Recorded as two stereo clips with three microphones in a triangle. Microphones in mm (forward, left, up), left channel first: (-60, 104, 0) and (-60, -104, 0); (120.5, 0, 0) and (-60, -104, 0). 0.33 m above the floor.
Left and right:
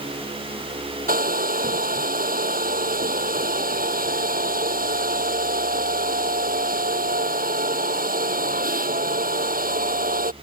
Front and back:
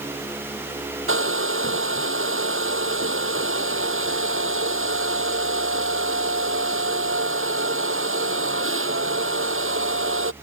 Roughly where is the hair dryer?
Behind right.